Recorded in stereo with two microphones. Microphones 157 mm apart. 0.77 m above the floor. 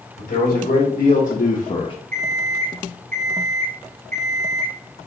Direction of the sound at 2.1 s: 65° right (ahead or behind).